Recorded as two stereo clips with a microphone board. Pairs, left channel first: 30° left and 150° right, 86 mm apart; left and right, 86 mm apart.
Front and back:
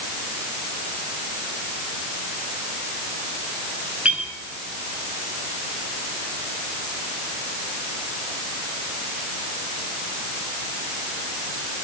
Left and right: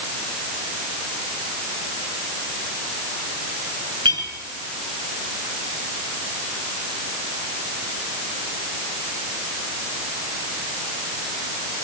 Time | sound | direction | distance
4.0 | a clink | 75° right | 7.5 m